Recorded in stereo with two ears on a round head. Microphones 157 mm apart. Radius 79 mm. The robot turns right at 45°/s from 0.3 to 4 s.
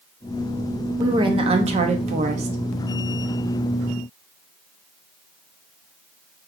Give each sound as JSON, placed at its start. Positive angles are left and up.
{"t": 1.0, "sound": "a woman speaking", "azimuth_deg": -145, "distance_m": 0.7}